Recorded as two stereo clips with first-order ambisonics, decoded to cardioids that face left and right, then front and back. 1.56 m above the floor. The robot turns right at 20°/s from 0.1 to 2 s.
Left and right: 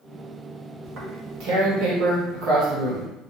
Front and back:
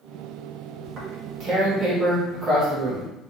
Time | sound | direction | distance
0.8 | tearing paper | 135° right | 0.9 m